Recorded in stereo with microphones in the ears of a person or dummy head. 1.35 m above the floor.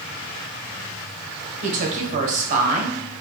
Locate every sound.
1.6 s a woman speaking: 50° right (ahead or behind), 1.0 m